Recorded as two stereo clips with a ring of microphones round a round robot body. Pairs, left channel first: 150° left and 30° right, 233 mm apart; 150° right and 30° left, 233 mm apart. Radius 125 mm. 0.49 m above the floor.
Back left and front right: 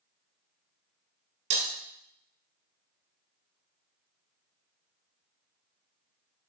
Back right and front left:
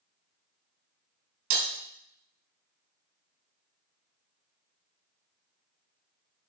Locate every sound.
1.5 s breaking glass: 15° left, 1.6 m